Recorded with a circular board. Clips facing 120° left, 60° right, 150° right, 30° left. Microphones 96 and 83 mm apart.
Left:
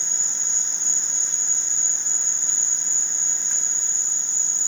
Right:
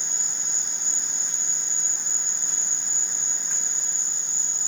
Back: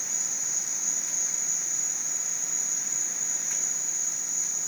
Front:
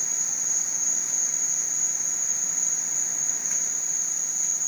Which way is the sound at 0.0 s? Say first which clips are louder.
Even, front 1 dB; 140° right.